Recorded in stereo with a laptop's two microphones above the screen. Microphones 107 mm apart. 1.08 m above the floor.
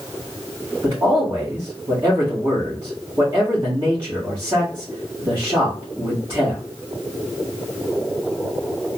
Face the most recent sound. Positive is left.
turn(degrees=-30)  # may be behind; listen again after turning